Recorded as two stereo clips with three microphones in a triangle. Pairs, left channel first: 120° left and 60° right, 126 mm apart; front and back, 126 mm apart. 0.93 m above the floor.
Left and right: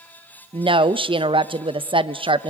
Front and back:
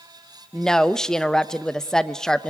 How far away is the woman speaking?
About 0.6 m.